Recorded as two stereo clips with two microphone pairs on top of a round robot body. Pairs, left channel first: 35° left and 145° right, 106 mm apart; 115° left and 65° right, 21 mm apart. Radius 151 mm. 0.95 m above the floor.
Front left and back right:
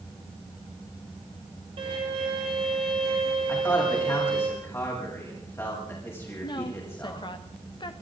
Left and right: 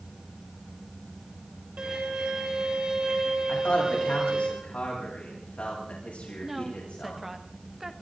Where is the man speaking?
100° left, 9.5 m.